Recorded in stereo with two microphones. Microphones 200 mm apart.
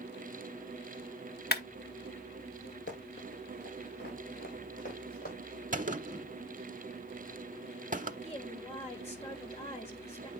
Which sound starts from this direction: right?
A gunshot, at 5.7 s.